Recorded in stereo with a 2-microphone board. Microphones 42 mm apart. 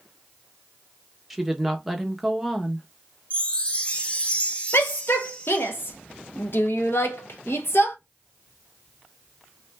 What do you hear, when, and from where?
1.3 s a woman speaking: centre (ahead or behind), 1.0 m
3.3 s a chime: 35° left (ahead or behind), 0.6 m
4.7 s a shout: 70° left (ahead or behind), 0.8 m